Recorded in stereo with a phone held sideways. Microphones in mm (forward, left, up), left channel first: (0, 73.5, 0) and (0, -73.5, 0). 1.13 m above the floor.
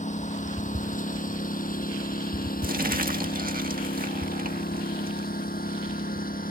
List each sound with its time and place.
0.0 s a lawn mower: 55° left (ahead or behind); by 6.5 s 75° left (ahead or behind)
2.6 s crumpling: 75° right (ahead or behind)